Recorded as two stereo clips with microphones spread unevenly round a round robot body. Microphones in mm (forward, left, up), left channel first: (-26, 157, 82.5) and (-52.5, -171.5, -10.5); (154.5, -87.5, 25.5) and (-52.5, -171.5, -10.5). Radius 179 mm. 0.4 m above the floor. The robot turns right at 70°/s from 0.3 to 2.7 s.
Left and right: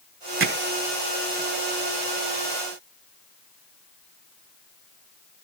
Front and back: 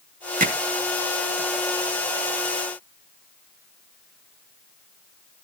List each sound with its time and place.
0.4 s hammering: 120° right, 2 m; by 0.6 s 110° right, 2 m